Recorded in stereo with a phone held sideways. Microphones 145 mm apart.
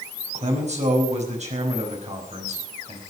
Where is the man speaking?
55° right (ahead or behind), 5.5 m.